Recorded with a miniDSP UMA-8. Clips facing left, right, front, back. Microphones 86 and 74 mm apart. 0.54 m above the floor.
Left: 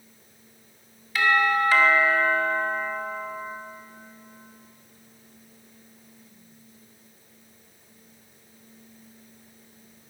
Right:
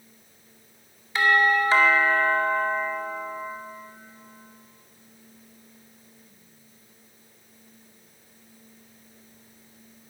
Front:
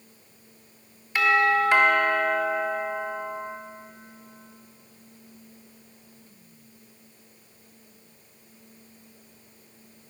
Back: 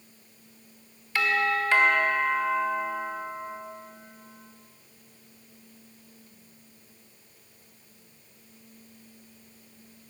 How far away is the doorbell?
About 1.9 m.